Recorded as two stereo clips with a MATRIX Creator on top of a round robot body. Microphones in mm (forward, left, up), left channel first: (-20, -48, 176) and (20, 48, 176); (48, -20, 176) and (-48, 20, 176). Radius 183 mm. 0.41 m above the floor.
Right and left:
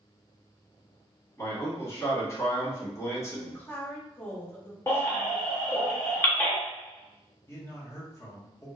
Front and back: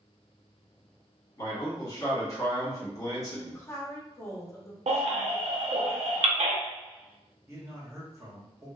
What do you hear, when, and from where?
1.4 s a man speaking: 60° right, 1.5 m
3.3 s a woman speaking: 60° right, 1.1 m
4.9 s a baby crying: 175° left, 0.6 m
7.5 s a man speaking: 160° right, 1.5 m